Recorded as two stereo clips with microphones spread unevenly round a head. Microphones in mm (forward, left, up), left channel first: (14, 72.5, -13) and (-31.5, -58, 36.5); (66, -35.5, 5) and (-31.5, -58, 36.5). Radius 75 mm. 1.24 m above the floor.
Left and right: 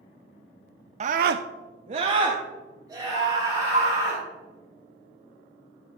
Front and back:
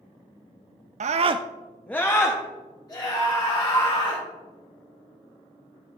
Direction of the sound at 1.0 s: 160° right.